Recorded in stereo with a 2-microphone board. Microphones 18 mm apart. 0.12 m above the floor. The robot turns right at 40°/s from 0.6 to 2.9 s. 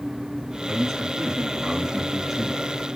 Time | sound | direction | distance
0.7 | a man speaking | 20° right (ahead or behind) | 1.3 m